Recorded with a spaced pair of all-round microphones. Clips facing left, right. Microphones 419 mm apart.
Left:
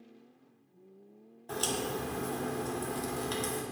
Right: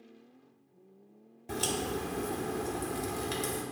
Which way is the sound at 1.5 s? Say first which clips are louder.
Right 1 dB; 40° right (ahead or behind).